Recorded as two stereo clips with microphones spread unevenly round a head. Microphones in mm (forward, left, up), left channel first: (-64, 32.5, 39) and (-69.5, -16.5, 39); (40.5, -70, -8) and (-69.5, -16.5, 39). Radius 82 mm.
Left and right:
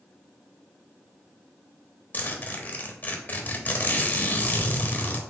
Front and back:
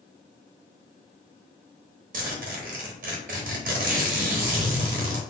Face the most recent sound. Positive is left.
turn(degrees=135)